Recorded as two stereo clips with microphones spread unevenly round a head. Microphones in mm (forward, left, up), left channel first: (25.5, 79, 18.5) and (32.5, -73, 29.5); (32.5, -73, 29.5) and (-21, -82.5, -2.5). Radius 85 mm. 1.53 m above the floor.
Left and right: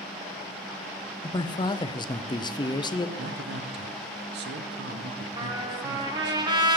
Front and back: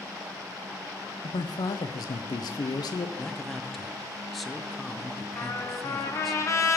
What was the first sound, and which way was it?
A man speaking, 30° left.